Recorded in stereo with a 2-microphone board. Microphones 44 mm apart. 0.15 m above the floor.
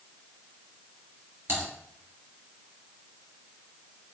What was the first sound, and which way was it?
Typing on a keyboard, 55° right (ahead or behind).